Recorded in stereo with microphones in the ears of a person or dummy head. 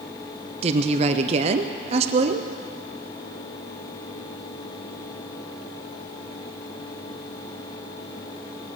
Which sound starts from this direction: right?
A woman speaking, at 0.6 s.